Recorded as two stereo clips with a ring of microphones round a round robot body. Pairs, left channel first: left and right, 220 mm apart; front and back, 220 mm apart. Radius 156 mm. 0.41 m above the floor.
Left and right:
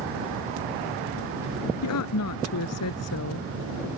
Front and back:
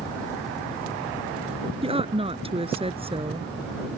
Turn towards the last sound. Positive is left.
turn(degrees=115)